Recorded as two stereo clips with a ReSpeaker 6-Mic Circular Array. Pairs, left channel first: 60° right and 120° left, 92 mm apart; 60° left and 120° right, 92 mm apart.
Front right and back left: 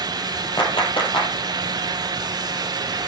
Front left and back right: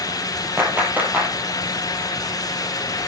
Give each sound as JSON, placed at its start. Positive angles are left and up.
{"t": 0.6, "sound": "a clap", "azimuth_deg": -50, "distance_m": 4.0}